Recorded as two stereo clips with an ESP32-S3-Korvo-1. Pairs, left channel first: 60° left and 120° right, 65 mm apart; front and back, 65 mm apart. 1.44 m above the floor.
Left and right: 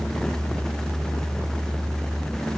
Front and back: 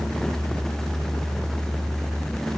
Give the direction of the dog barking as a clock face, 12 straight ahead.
No dog barking in this recording.